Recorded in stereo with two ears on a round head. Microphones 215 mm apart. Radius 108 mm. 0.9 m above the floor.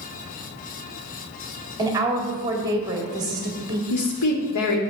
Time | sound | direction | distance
1.8 | a woman speaking | 15° right (ahead or behind) | 1.7 m
3.9 | a woman speaking | 80° left | 1.8 m